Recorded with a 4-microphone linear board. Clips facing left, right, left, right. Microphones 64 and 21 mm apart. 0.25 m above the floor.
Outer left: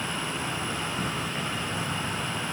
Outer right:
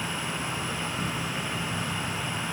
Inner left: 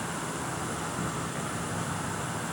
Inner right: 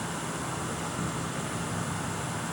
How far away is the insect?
About 7 m.